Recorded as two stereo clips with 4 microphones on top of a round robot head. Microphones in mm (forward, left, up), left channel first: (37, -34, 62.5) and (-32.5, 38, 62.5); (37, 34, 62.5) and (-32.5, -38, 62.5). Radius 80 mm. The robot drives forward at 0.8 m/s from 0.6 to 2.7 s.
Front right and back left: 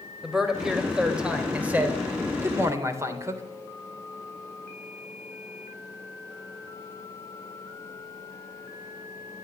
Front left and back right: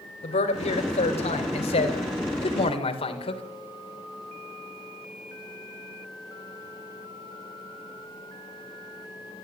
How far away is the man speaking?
About 4 m.